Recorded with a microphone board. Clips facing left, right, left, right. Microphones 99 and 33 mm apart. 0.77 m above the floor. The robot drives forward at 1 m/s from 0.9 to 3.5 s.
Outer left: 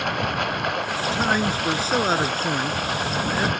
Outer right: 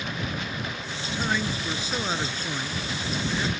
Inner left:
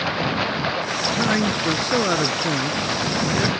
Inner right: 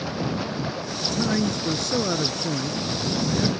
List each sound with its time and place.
0.0 s running water: 70° left (ahead or behind); by 3.6 s 60° left (ahead or behind)
1.0 s a man speaking: 40° left (ahead or behind); by 3.5 s 45° left (ahead or behind)